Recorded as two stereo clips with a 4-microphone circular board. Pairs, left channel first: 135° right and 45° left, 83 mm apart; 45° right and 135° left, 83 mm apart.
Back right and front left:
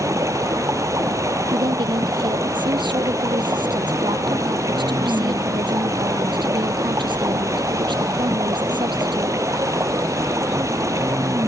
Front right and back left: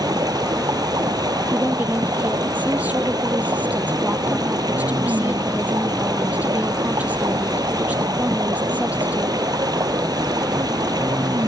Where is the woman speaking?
60° left.